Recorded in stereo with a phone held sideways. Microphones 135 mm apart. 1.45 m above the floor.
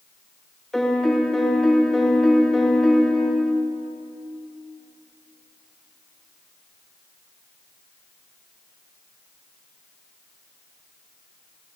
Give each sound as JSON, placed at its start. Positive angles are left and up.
{"t": 0.7, "sound": "a piano", "side_deg": 5, "distance_m": 0.7}